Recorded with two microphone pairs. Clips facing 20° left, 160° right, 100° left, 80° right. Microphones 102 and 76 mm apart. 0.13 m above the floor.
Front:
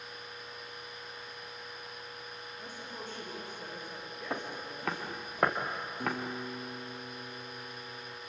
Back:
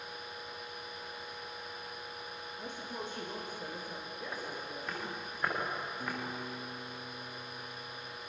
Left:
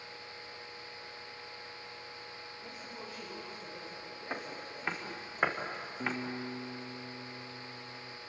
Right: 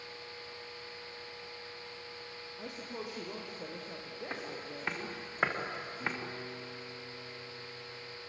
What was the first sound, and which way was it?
A woman speaking, 95° right.